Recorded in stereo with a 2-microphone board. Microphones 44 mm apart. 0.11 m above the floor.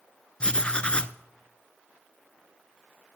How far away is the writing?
About 0.5 m.